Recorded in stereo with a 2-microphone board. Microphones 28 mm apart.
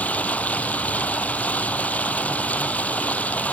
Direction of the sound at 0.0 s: 60° left (ahead or behind).